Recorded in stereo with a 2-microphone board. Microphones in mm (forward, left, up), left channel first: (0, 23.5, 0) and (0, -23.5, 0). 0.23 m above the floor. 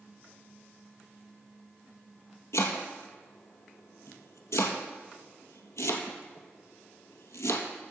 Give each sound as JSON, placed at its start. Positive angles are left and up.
{"t": 2.5, "sound": "chopping", "side_deg": 85, "distance_m": 1.8}